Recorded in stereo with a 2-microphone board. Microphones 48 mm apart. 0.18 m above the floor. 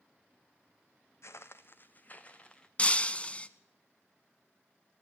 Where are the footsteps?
75° left (ahead or behind), 0.8 m; by 2.7 s 20° left (ahead or behind), 1.2 m.